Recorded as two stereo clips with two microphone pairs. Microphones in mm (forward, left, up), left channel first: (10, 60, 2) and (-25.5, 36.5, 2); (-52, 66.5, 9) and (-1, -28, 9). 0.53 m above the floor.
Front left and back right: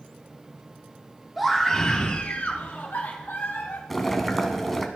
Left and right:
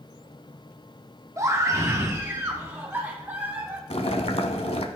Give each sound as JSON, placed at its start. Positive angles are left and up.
{"t": 1.4, "sound": "a scream", "azimuth_deg": -65, "distance_m": 1.0}
{"t": 3.9, "sound": "boiling", "azimuth_deg": 120, "distance_m": 0.8}